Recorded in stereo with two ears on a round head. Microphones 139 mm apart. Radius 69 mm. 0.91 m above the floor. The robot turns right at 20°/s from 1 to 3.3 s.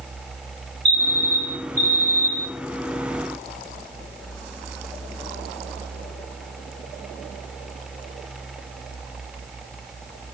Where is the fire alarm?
45° right, 2.5 m; by 2.5 s 15° right, 2.5 m.